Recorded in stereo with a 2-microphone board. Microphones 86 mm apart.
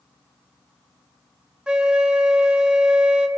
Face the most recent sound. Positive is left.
turn(degrees=-10)  # may be behind; listen again after turning